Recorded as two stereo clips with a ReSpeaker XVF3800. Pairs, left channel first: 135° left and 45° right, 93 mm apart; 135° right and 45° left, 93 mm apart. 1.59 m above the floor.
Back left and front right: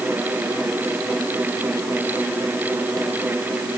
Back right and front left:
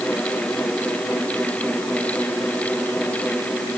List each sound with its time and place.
Only background noise.